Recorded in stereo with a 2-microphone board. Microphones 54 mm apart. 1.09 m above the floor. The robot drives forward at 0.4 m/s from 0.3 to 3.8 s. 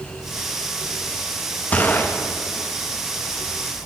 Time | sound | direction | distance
1.7 | a gunshot | 30° left (ahead or behind) | 0.7 m